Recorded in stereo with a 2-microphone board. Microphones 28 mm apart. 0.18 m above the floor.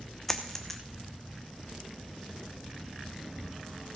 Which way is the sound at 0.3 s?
10° left (ahead or behind).